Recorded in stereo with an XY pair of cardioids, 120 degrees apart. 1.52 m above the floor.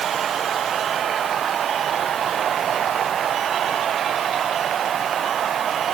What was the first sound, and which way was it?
Only background noise.